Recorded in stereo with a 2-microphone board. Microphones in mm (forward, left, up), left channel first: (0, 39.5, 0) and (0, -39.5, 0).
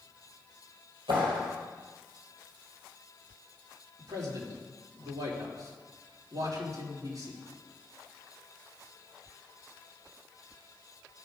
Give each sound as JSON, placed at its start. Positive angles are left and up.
{"t": 1.1, "sound": "a clap", "side_deg": -85, "distance_m": 4.0}
{"t": 4.0, "sound": "a man speaking", "side_deg": -55, "distance_m": 3.0}